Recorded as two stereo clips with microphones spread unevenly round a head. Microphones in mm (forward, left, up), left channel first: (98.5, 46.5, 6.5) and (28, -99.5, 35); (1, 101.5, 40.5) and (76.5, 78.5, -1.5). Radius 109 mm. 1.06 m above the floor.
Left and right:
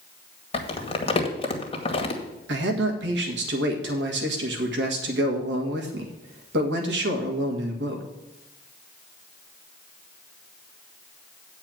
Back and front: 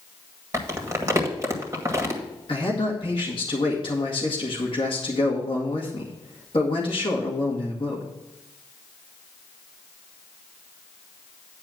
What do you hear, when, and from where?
0.5 s crumpling: 15° left, 2 m
2.5 s a man speaking: 130° right, 1.9 m